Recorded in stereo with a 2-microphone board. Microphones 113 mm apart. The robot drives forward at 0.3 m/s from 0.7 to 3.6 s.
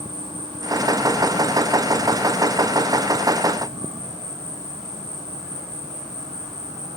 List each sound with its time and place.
0.0 s an insect: 40° right (ahead or behind), 3 m; by 7.0 s 30° right (ahead or behind), 3.5 m